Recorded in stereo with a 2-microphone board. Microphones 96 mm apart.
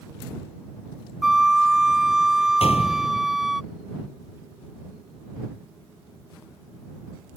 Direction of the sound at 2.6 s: 85° left.